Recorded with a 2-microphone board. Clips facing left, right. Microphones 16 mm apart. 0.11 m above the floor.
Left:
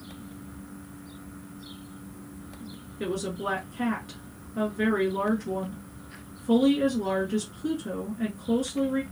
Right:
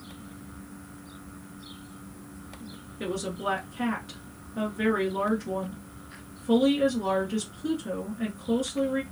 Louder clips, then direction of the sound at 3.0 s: Even; centre (ahead or behind).